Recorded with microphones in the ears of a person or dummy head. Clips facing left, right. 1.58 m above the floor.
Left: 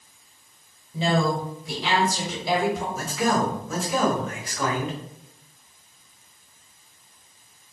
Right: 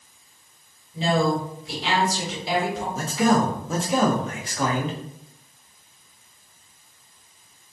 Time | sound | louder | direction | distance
0.9 | a woman speaking | right 1 dB | 85° left | 1.2 m
3.0 | a man speaking | right 7 dB | 25° right (ahead or behind) | 0.6 m